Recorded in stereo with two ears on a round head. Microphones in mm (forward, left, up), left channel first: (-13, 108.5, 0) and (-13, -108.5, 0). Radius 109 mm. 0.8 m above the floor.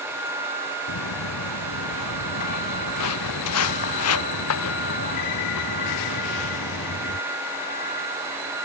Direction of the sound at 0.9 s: 85° left.